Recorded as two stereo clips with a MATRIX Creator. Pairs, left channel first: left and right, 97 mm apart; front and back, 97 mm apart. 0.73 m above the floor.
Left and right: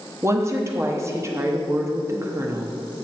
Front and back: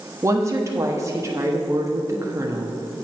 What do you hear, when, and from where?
0.2 s a woman speaking: 135° right, 1.0 m